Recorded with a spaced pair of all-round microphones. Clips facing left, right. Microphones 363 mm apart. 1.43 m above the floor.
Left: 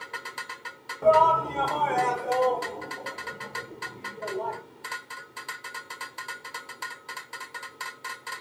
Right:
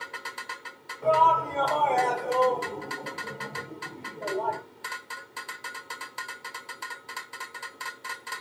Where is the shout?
60° left (ahead or behind), 0.9 m; by 4.6 s 60° right (ahead or behind), 1.6 m.